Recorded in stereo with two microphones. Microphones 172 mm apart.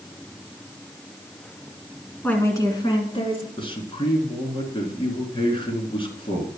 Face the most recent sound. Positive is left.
turn(degrees=30)  # may be behind; listen again after turning